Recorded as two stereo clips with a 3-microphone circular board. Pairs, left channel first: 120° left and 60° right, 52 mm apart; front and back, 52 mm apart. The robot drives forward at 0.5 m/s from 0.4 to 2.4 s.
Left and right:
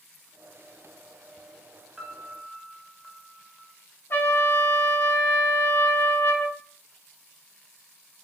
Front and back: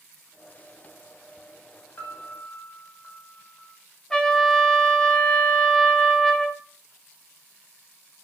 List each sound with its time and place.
2.0 s a piano: 20° left, 0.9 m; by 3.7 s 30° left, 0.7 m
4.1 s a trumpet: 75° left, 0.6 m